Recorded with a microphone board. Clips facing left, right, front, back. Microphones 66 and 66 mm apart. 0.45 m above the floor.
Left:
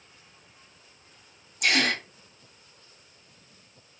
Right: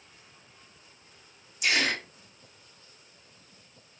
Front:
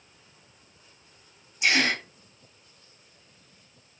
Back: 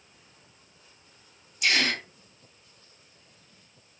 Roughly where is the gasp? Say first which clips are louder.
Left 2 dB, front 2 dB; ahead left.